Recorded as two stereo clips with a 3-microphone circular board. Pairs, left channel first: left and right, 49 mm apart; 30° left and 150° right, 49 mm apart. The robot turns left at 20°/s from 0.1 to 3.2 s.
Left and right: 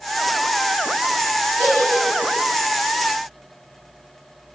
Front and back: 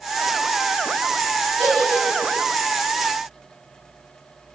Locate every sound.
1.6 s a giggle: 80° left, 1.8 m; by 2.4 s 65° left, 1.8 m